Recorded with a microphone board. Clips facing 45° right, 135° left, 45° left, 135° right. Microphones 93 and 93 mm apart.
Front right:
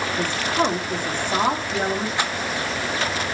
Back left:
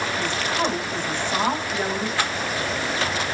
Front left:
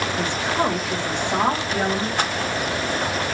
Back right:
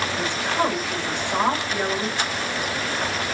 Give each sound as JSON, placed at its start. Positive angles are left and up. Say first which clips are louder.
{"t": 0.2, "sound": "a woman speaking", "louder": "front right 4 dB, front left 1 dB", "azimuth_deg": -15, "distance_m": 1.7}
{"t": 2.2, "sound": "a rattle", "louder": "even, front left 3 dB", "azimuth_deg": 20, "distance_m": 1.2}